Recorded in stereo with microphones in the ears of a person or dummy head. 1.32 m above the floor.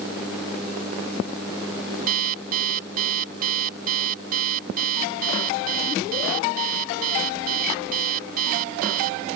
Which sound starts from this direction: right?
An alarm clock, at 2.1 s.